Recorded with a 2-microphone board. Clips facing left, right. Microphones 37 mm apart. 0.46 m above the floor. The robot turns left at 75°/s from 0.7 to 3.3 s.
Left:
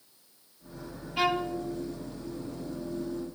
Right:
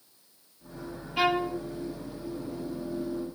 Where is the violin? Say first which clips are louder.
Right 2 dB; 5° right, 0.9 m; by 1.6 s 40° right, 0.9 m.